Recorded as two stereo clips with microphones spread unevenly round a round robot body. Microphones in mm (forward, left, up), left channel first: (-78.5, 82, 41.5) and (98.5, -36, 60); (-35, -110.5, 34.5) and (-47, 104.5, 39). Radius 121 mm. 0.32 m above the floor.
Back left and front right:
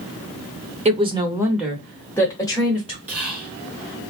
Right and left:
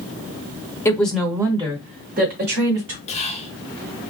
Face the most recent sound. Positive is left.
turn(degrees=-115)